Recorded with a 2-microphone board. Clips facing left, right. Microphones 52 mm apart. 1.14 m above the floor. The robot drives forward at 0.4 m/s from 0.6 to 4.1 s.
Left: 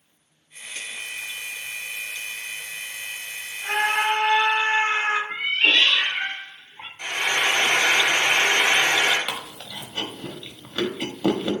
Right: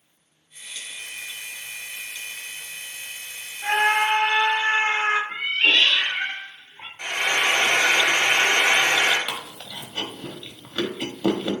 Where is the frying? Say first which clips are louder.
Right 1 dB; 45° right (ahead or behind), 1.3 m.